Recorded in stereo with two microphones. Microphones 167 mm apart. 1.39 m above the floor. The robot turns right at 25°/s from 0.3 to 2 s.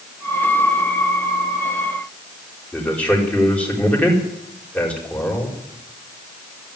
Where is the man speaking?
10° left (ahead or behind), 4.5 m.